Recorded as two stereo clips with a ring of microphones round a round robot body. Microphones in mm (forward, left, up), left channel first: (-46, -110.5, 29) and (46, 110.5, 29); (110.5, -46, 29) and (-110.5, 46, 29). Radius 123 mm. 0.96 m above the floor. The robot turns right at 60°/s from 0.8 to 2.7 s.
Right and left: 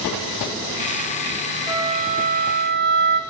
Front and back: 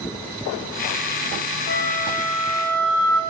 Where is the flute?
5° right, 0.6 m; by 3.2 s 55° left, 0.6 m.